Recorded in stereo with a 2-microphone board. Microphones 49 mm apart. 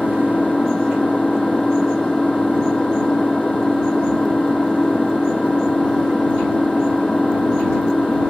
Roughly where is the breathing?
I don't hear breathing.